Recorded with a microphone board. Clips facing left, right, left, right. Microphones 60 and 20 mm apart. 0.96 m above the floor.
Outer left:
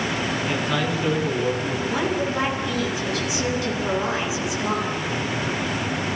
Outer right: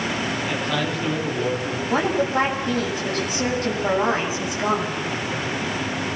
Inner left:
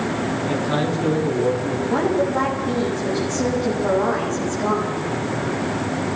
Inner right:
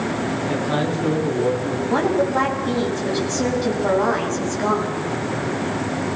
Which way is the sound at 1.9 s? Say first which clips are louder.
Outer right 5 dB, inner right 1 dB; 40° right (ahead or behind).